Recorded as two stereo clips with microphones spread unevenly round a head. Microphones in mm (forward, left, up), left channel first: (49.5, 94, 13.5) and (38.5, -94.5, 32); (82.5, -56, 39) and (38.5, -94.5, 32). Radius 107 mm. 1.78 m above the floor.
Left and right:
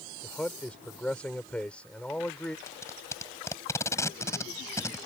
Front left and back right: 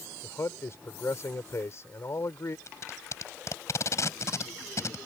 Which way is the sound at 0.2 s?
Straight ahead.